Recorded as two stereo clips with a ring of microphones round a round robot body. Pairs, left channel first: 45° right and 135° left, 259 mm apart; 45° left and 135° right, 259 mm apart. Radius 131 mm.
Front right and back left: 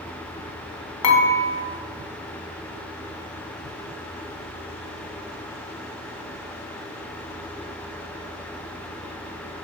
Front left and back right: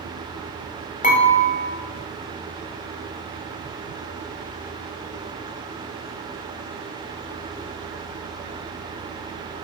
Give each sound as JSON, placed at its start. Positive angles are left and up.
{"t": 1.0, "sound": "dishes clattering", "azimuth_deg": -15, "distance_m": 2.0}